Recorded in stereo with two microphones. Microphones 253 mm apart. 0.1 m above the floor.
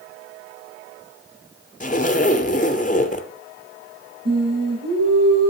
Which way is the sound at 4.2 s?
75° right (ahead or behind).